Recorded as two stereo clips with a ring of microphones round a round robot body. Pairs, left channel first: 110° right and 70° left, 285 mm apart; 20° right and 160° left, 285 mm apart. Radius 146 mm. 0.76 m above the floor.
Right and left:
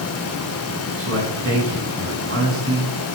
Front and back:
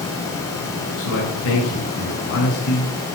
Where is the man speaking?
20° left, 7.5 m.